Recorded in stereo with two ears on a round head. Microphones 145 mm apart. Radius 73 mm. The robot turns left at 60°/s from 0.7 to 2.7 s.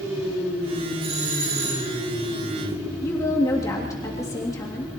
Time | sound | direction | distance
1.0 | a doorbell | 35° right | 4 m
3.0 | a woman speaking | 20° left (ahead or behind) | 3 m